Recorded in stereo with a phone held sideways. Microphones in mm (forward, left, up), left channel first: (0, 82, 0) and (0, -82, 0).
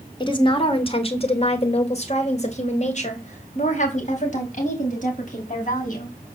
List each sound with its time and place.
0.2 s a woman speaking: 30° left (ahead or behind), 2 m; by 6.1 s 50° left (ahead or behind), 6.5 m